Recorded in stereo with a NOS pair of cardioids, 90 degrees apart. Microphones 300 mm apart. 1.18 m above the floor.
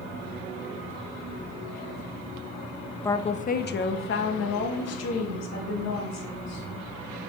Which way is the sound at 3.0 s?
10° left.